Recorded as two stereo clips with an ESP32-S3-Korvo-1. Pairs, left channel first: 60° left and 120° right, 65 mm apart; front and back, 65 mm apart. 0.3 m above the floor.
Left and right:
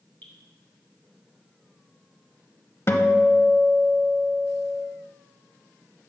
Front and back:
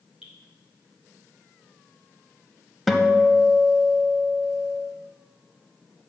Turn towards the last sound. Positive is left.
turn(degrees=90)